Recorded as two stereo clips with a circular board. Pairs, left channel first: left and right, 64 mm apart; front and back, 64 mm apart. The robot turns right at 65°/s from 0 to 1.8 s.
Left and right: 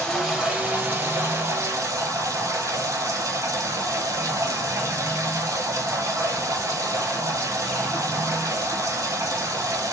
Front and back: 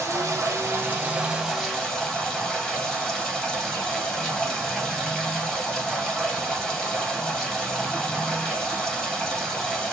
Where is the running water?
160° left, 1.2 m; by 9.9 s 80° right, 1.2 m.